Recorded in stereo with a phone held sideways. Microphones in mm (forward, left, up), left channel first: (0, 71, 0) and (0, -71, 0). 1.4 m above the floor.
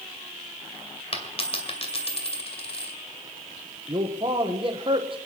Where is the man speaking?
35° right (ahead or behind), 1.2 m.